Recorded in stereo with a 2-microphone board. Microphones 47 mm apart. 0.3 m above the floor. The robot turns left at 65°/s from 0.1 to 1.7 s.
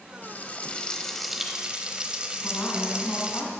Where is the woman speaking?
50° left (ahead or behind), 2.5 m.